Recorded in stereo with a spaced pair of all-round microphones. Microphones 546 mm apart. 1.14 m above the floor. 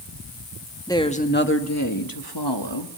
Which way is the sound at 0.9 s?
5° left (ahead or behind).